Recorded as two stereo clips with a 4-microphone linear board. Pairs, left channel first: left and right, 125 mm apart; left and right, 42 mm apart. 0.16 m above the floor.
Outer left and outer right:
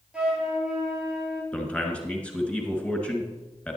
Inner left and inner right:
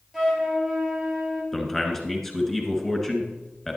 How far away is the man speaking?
About 1.8 m.